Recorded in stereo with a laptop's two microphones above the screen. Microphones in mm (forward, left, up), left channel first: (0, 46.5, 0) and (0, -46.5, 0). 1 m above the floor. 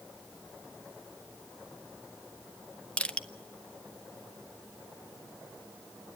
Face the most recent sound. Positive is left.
turn(degrees=10)  # may be behind; listen again after turning